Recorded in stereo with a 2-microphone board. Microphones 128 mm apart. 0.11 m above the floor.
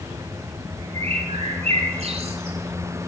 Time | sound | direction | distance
0.9 | a bird | 55° right (ahead or behind) | 1.7 m